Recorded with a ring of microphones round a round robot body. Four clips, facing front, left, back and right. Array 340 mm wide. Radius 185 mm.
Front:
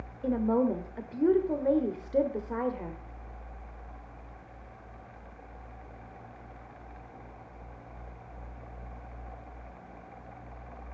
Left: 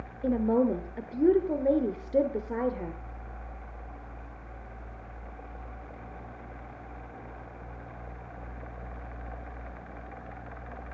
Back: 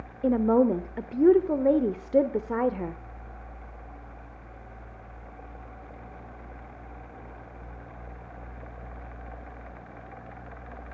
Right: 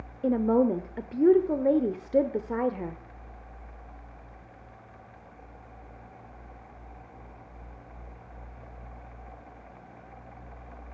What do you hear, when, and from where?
0.2 s a woman speaking: 160° right, 1.1 m